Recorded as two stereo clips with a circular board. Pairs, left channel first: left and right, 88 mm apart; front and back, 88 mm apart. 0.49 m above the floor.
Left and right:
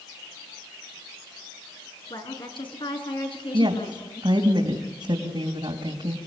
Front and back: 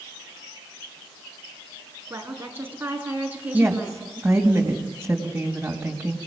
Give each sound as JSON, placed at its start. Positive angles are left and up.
{"t": 2.1, "sound": "a woman speaking", "azimuth_deg": 115, "distance_m": 5.0}
{"t": 3.5, "sound": "a woman speaking", "azimuth_deg": -105, "distance_m": 3.0}